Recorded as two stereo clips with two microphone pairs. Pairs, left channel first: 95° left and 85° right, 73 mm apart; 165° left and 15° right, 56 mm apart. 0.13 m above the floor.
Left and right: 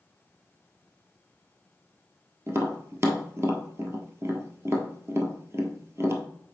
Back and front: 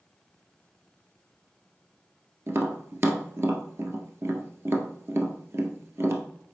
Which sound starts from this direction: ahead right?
Tapping, at 2.5 s.